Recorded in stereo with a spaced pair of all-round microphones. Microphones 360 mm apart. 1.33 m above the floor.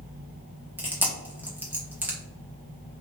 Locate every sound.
0.8 s chewing: 5° right (ahead or behind), 1.0 m